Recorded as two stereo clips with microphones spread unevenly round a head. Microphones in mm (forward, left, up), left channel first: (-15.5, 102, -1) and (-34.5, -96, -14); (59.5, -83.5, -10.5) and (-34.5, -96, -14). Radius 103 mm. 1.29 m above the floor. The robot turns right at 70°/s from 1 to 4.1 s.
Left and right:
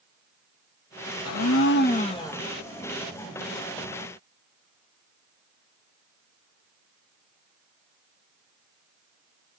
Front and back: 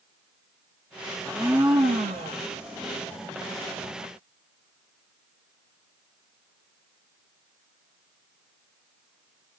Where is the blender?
90° left, 1.0 m; by 2.4 s 170° left, 1.0 m.